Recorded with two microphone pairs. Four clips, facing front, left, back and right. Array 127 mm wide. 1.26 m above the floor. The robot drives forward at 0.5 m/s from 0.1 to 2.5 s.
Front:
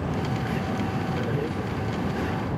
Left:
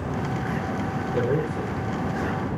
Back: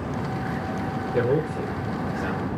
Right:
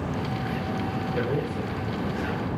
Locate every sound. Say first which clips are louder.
1.1 s a man speaking: left 5 dB, back 5 dB; 165° left, 3.5 m